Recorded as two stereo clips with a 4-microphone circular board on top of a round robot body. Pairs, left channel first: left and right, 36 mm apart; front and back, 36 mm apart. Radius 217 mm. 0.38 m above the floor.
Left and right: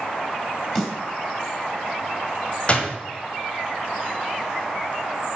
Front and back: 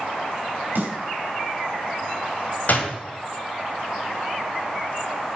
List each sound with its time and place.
0.8 s a snare drum: 165° left, 3.5 m
2.7 s a door slam: 35° left, 1.8 m